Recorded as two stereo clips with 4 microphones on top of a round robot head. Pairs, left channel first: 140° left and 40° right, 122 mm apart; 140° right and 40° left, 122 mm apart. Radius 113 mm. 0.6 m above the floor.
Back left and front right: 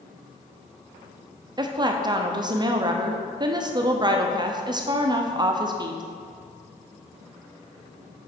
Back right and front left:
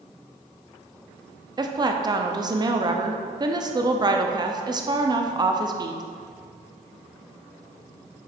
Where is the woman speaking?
Straight ahead, 0.8 m.